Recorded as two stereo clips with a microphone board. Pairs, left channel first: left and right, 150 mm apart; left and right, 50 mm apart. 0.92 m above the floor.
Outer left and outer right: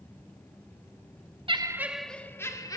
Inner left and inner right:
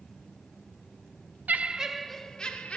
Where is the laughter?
35° right (ahead or behind), 1.1 m; by 2.8 s 25° left (ahead or behind), 2 m.